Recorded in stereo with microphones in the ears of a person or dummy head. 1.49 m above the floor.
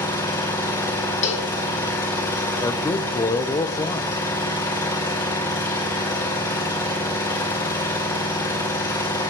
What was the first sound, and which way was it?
An engine running, 15° left (ahead or behind).